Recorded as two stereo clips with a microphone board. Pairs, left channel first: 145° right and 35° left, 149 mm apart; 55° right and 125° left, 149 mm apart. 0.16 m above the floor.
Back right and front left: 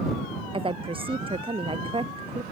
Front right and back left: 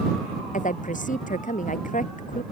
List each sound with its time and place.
0.5 s a woman speaking: 20° right